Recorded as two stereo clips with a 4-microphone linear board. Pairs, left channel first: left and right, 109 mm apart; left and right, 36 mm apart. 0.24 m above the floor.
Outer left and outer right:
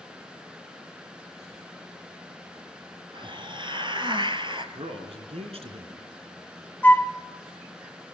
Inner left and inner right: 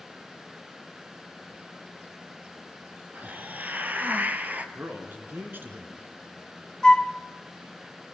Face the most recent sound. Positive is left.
turn(degrees=15)  # may be behind; listen again after turning